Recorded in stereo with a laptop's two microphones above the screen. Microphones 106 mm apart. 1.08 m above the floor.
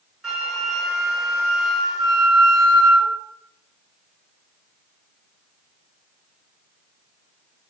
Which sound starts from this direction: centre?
A flute, at 0.2 s.